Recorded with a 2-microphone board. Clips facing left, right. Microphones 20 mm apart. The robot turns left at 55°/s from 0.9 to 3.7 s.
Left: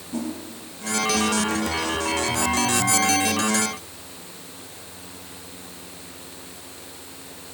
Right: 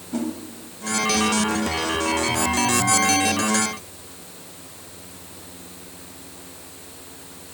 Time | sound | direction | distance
0.1 | a whoosh | 25° right (ahead or behind) | 1.4 m